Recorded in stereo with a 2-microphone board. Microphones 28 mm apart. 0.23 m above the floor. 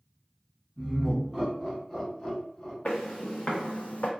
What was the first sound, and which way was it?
Laughter, 10° left (ahead or behind).